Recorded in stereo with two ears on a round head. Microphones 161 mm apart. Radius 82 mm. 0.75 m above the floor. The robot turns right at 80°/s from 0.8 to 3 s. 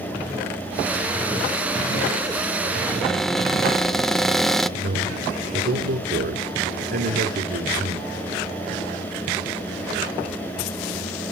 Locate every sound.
2.9 s a cupboard door: 15° left (ahead or behind), 0.6 m; by 4.7 s centre (ahead or behind), 0.6 m
4.8 s a man speaking: 55° right (ahead or behind), 3 m